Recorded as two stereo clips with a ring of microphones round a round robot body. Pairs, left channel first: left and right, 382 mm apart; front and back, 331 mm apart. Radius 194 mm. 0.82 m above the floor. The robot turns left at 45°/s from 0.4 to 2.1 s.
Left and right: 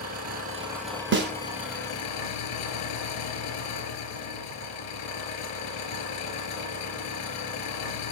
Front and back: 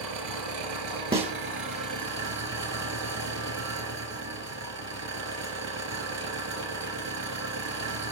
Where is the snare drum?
120° right, 0.5 m; by 1.3 s 125° right, 0.5 m.